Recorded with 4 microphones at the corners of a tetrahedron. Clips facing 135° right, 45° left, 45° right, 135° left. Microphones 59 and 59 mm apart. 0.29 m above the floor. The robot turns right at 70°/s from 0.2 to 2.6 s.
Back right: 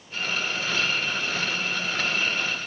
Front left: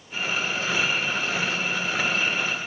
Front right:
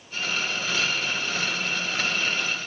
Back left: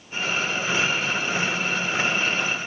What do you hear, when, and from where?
Only background noise.